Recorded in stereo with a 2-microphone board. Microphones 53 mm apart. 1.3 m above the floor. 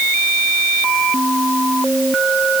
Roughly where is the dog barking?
I don't hear a dog barking.